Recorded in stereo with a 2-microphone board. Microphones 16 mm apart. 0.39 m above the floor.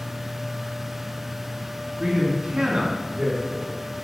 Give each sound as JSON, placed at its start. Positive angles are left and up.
{"t": 2.0, "sound": "a man speaking", "side_deg": -65, "distance_m": 3.5}